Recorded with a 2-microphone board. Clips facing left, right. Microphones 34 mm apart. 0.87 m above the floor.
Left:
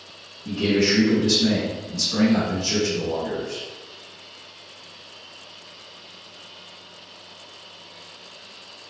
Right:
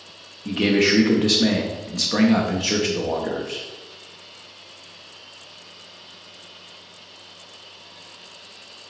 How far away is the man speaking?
About 0.9 m.